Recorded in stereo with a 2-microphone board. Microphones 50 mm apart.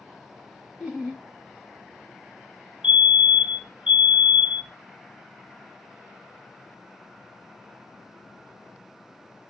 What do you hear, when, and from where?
0.8 s laughter: 15° right (ahead or behind), 1.0 m
2.8 s a fire alarm: 30° right (ahead or behind), 0.8 m